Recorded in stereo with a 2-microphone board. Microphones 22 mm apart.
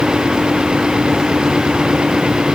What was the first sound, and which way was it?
Only background noise.